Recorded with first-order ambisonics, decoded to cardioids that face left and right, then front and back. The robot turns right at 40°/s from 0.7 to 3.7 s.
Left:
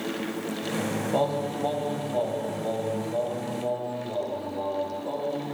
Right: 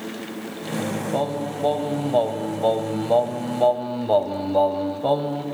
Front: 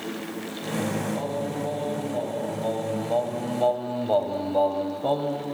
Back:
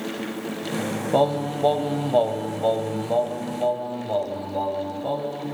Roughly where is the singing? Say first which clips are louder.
Even, back 8 dB; behind.